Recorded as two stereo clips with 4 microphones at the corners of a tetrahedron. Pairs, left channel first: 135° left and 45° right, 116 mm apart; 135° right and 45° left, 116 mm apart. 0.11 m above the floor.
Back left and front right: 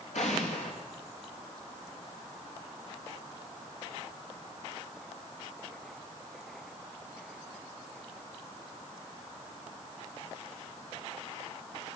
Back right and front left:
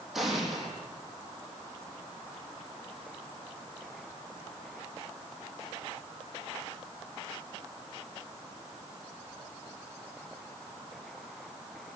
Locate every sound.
0.1 s an explosion: 135° left, 4.5 m